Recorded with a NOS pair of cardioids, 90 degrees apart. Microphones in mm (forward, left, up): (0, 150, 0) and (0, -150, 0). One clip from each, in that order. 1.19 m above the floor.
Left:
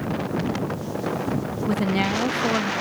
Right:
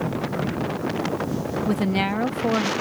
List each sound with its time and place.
1.7 s a woman speaking: 10° right